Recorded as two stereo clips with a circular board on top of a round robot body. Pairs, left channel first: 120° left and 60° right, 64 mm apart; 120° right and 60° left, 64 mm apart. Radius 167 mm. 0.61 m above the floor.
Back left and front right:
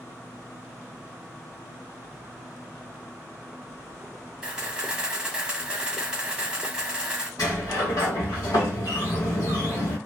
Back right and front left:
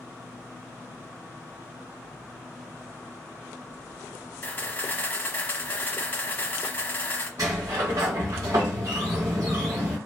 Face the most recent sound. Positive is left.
turn(degrees=90)